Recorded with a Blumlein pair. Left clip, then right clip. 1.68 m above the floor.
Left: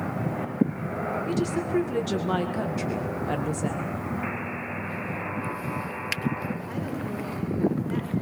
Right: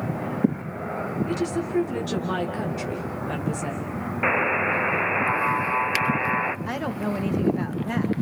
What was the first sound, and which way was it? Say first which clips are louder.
A woman speaking: right 1 dB; 5° left.